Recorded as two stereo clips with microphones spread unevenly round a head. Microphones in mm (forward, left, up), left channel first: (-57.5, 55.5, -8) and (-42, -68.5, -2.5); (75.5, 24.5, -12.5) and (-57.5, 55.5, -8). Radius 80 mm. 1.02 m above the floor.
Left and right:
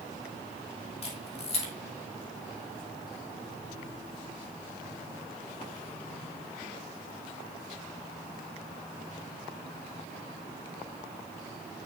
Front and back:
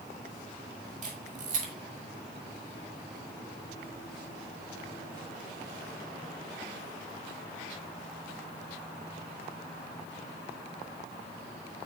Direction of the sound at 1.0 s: 135° left.